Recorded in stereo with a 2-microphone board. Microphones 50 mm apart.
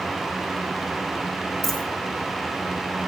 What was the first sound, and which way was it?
A dropped coin, 5° left (ahead or behind).